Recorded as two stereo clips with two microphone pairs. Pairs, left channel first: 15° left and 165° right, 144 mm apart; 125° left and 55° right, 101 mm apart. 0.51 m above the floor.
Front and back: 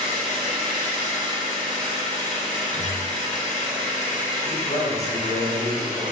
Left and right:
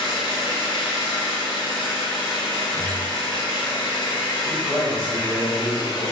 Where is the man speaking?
15° left, 1.4 m.